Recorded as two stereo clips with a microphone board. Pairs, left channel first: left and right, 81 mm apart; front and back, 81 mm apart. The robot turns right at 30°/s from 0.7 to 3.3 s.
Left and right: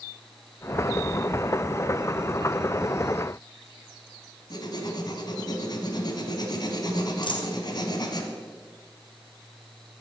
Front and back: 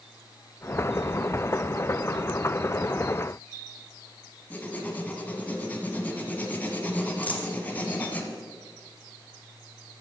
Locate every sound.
4.5 s writing: 70° left, 1.8 m
7.2 s a dropped coin: 70° left, 1.6 m